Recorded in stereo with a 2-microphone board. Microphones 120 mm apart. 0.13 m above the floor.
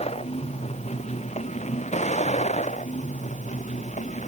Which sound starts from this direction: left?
A vehicle, at 0.0 s.